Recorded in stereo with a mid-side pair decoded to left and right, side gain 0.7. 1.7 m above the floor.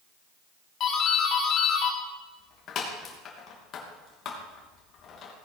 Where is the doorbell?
45° left, 3 m.